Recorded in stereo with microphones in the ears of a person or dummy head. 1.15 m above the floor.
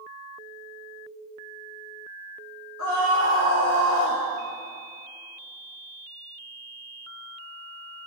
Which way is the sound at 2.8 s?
75° left (ahead or behind).